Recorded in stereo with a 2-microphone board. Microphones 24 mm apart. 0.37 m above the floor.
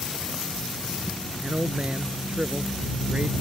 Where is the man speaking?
55° right (ahead or behind); by 3.3 s 75° right (ahead or behind).